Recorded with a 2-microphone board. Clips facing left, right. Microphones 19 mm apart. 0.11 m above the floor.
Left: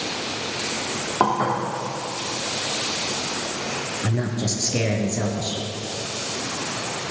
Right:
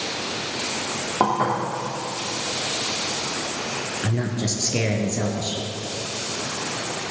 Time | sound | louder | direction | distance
1.2 | dishes clattering | even | centre (ahead or behind) | 3.5 m
4.0 | a man speaking | even | 30° right (ahead or behind) | 2 m